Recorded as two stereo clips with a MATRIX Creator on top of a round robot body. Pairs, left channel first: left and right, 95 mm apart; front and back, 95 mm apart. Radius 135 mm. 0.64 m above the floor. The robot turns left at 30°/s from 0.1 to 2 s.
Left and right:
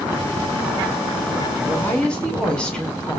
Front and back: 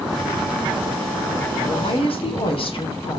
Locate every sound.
1.6 s a woman speaking: 20° left, 3 m; by 3.2 s 10° left, 3 m